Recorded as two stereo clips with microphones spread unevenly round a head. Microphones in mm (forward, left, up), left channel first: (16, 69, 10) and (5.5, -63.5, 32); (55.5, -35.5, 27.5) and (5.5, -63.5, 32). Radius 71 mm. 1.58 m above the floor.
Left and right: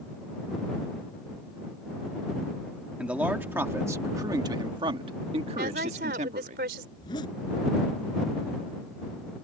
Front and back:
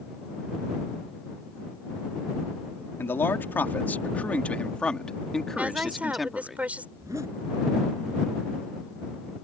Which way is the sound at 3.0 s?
15° right.